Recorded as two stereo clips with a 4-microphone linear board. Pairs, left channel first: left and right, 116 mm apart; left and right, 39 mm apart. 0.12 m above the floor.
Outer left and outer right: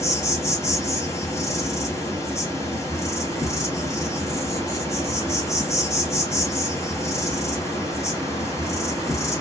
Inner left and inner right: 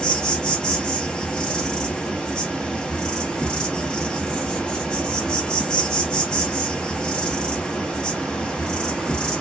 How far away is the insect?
About 1.0 m.